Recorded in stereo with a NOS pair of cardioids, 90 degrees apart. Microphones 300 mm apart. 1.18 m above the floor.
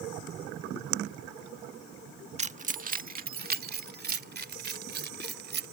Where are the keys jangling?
25° right; by 5.7 s 35° right.